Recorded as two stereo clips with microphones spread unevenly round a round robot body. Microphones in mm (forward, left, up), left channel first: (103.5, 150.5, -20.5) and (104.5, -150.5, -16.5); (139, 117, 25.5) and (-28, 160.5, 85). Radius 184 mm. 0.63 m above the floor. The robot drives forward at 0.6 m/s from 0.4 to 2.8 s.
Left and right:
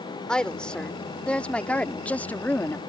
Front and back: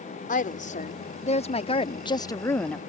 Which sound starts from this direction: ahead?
A woman speaking, at 0.3 s.